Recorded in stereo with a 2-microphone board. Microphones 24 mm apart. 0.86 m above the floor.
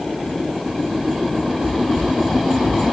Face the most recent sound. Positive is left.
turn(degrees=-65)  # may be behind; listen again after turning